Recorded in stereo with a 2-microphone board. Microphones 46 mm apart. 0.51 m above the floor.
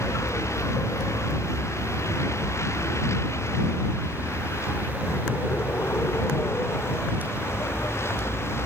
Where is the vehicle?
85° left; by 8.7 s 60° left (ahead or behind).